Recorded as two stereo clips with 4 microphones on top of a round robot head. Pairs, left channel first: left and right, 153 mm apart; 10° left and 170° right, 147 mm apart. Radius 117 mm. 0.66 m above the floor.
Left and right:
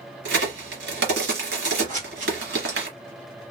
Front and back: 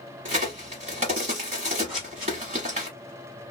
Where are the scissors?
85° right, 1.6 m.